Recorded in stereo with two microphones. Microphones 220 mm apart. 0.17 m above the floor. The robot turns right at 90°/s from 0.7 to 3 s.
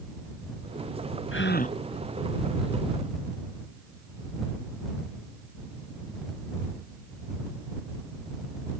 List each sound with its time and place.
1.3 s a gasp: 115° left; by 1.8 s 155° left